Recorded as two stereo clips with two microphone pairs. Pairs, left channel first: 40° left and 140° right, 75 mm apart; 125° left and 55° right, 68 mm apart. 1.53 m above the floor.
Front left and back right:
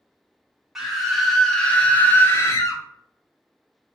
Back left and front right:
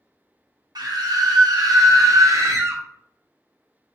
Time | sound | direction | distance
0.8 | a scream | 55° right | 1.5 m